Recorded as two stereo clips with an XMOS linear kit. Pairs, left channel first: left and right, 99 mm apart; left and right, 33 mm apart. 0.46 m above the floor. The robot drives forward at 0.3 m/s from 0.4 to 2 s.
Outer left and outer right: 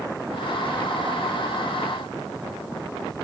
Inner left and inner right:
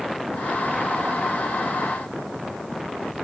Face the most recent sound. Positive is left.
No sound to turn to.